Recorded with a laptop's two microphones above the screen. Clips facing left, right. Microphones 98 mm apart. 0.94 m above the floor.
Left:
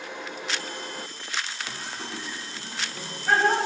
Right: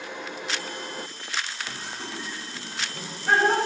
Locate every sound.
1.7 s laughter: 10° left (ahead or behind), 5 m; by 3.6 s 10° right (ahead or behind), 3.5 m